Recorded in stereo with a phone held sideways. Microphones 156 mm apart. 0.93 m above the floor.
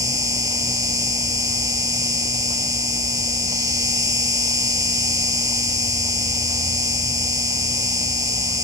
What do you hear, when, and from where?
0.0 s an insect: 25° right (ahead or behind)